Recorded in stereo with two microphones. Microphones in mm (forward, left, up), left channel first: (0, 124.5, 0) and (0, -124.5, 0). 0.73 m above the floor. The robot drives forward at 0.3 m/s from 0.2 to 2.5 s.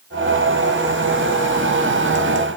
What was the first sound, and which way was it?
Only background noise.